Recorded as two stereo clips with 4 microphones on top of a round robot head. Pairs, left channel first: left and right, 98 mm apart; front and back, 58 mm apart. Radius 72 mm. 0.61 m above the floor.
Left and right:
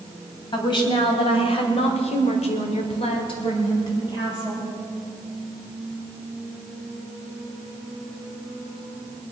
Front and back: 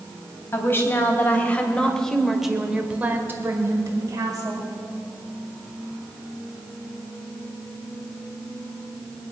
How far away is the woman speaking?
About 3.5 m.